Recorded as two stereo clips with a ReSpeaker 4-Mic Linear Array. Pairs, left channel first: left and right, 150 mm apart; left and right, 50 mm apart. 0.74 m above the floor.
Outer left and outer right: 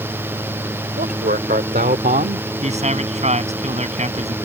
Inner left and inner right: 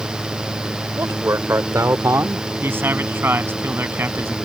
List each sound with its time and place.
1.0 s a man speaking: 80° right; by 2.5 s 65° right (ahead or behind)
2.6 s a man speaking: 50° right (ahead or behind)